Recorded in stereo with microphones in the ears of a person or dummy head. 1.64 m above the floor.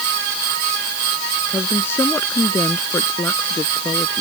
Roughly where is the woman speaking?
Left.